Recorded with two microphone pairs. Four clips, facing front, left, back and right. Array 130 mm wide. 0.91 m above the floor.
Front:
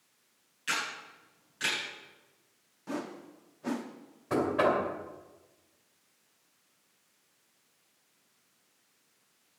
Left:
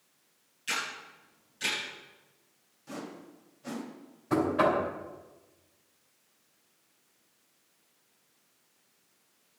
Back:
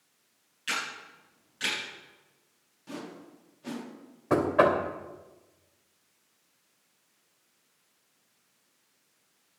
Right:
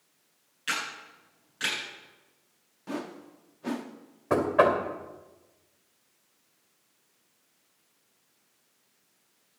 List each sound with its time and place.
0.7 s a camera shutter: 85° right, 9.5 m
2.9 s a whoosh: 60° right, 1.4 m
4.3 s knocking: 125° right, 2.5 m